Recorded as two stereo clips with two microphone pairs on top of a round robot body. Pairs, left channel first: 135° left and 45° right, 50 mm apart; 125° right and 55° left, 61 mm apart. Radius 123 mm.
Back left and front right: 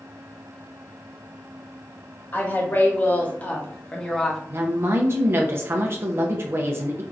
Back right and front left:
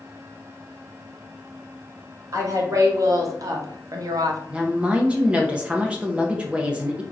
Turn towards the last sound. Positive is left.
turn(degrees=-15)